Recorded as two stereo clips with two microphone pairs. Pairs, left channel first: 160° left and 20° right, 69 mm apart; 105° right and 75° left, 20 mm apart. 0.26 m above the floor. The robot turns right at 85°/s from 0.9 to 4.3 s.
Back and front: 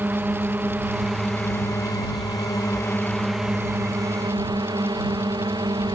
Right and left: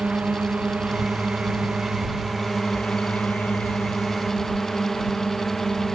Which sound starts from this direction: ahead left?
A drone, at 0.0 s.